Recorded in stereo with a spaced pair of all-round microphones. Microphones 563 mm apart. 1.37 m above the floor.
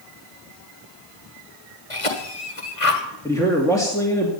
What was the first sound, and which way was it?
A cough, 65° left (ahead or behind).